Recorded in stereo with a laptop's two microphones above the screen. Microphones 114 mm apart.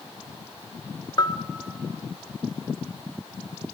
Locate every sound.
1.2 s a bell: 35° left (ahead or behind), 0.6 m